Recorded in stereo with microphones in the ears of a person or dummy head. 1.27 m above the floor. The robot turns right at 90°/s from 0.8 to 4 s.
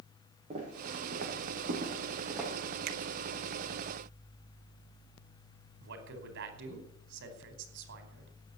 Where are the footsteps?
45° right (ahead or behind), 6.5 m; by 2.5 s 5° left (ahead or behind), 7 m.